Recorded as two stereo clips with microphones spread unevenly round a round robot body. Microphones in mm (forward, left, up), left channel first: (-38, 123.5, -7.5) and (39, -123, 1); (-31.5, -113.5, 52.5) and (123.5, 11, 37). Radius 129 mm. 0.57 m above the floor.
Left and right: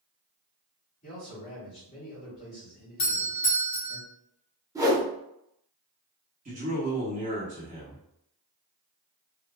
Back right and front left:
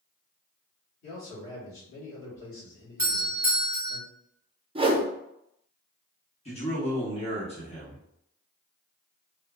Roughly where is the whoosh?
Ahead.